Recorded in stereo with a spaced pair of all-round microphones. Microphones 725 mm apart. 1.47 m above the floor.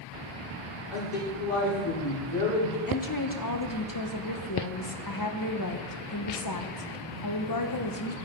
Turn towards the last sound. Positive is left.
turn(degrees=30)  # may be behind; listen again after turning